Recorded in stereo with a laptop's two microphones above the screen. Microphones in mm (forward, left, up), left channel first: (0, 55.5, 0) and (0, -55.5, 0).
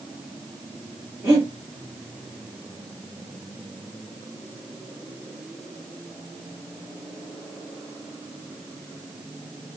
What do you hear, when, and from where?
1.2 s breathing: 20° right (ahead or behind), 2 m